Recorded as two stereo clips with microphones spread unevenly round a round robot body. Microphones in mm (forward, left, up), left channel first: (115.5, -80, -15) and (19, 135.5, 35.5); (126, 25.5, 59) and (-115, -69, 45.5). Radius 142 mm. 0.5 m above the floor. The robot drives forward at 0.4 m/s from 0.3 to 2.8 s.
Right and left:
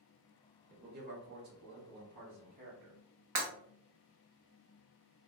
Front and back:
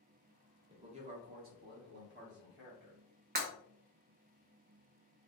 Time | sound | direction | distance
0.7 | a man speaking | 150° left | 0.7 m
3.4 | breaking glass | 150° left | 1.1 m